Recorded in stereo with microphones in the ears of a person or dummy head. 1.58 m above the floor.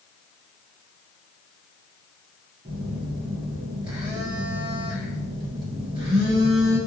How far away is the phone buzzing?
About 1.1 m.